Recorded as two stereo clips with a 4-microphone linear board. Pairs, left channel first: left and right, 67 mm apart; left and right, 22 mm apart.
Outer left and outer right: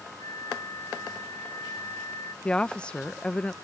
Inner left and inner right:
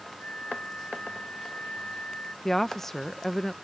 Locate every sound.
0.2 s a flute: 75° left (ahead or behind)
2.5 s a woman speaking: 15° left (ahead or behind)